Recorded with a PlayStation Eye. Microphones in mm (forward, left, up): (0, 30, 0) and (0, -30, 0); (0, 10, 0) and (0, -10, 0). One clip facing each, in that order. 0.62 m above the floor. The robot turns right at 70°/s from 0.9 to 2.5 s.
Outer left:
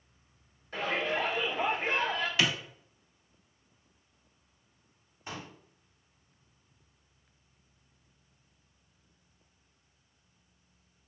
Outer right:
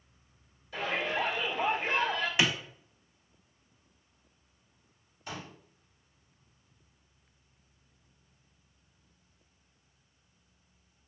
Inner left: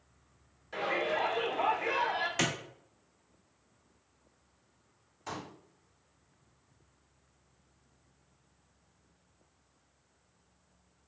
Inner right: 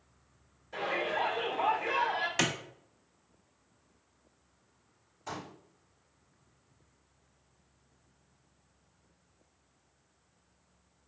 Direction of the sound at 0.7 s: 65° left.